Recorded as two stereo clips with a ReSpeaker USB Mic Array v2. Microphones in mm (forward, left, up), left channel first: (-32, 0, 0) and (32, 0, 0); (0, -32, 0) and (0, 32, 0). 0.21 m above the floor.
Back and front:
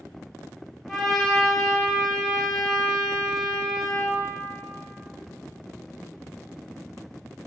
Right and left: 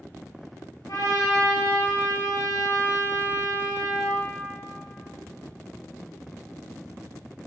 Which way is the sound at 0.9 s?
95° right.